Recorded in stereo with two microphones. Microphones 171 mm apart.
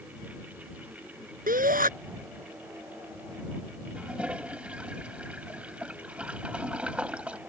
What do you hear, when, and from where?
1.5 s a shout: 55° right (ahead or behind)
4.0 s a toilet flushing: 5° right (ahead or behind)